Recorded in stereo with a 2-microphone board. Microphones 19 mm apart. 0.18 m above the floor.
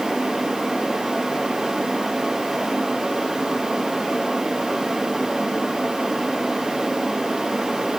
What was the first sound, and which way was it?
Only background noise.